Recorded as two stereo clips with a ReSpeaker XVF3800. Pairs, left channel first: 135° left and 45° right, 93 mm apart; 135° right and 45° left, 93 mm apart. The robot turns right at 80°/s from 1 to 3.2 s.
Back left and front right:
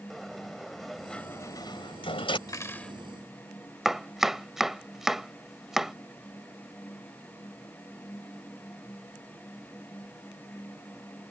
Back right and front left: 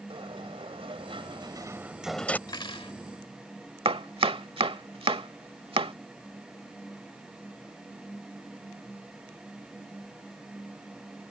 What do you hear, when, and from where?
0.1 s a sliding door: 45° left; by 2.4 s 155° left
2.5 s cutlery clinking: straight behind; by 3.0 s 140° right
3.9 s chopping: 40° left